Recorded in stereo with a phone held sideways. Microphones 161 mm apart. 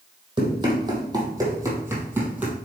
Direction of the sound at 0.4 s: 30° right (ahead or behind).